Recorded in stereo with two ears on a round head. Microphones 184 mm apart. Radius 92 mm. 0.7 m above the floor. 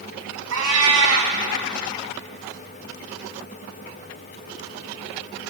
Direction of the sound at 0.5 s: 85° right.